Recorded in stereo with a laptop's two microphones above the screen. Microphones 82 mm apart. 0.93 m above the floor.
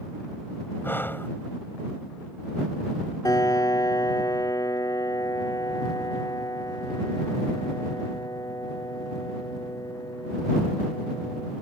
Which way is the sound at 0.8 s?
25° left (ahead or behind).